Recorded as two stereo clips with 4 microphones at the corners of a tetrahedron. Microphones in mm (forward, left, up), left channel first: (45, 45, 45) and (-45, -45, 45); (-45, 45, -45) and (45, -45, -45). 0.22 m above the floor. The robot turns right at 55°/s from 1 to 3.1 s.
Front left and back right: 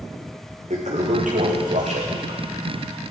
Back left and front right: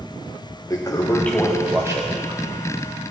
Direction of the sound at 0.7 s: 160° right.